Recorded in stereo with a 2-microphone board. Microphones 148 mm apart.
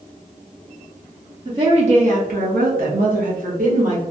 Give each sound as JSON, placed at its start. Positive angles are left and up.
{"t": 1.4, "sound": "a woman speaking", "side_deg": -35, "distance_m": 0.8}